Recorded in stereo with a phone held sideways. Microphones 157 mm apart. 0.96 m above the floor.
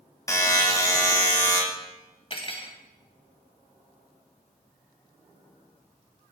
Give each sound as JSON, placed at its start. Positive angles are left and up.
{"t": 0.3, "sound": "a buzzer", "side_deg": 20, "distance_m": 0.7}
{"t": 2.3, "sound": "cutlery clinking", "side_deg": 40, "distance_m": 0.5}